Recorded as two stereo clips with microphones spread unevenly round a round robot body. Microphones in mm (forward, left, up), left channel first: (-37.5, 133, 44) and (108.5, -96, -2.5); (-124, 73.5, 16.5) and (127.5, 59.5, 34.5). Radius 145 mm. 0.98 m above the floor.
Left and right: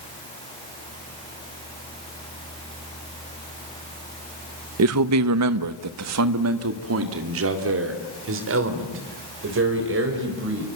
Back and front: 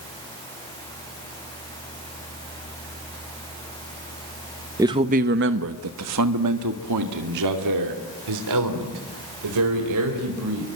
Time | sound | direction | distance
4.8 | a man speaking | 85° right | 0.8 m